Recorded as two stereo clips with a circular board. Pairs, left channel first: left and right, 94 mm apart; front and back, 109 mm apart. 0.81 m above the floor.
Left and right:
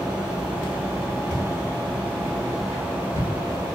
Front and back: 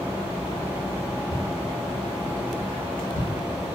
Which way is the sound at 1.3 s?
10° right.